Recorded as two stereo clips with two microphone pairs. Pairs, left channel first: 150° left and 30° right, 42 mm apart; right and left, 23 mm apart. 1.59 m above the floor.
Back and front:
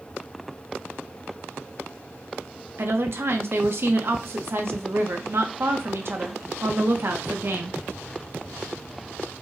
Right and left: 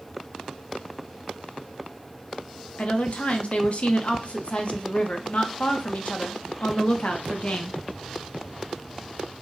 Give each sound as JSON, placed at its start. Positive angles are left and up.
{"t": 2.8, "sound": "a woman speaking", "azimuth_deg": -60, "distance_m": 0.8}